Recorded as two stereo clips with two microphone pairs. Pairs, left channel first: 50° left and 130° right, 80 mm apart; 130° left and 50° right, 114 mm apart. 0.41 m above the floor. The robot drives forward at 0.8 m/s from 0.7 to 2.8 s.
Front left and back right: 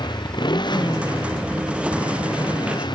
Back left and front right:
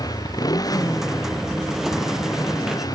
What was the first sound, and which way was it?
A motorcycle, 75° left.